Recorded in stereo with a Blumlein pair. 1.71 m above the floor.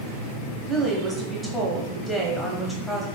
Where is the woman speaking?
Straight ahead, 1.0 m.